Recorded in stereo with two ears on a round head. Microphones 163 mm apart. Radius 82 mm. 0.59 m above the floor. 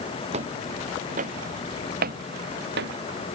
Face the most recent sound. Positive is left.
turn(degrees=-65)  # may be behind; listen again after turning